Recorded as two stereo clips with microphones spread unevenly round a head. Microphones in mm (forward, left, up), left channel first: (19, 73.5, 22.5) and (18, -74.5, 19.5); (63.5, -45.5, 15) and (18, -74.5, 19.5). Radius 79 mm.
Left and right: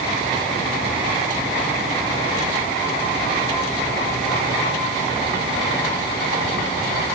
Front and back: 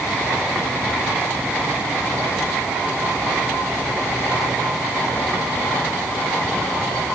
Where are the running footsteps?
No running footsteps in this recording.